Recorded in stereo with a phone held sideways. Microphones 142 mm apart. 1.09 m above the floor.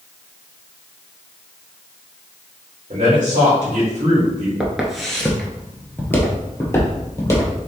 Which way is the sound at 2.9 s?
60° right (ahead or behind).